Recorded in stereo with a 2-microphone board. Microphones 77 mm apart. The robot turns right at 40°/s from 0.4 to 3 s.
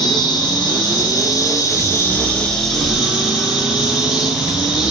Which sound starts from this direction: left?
An insect, at 0.0 s.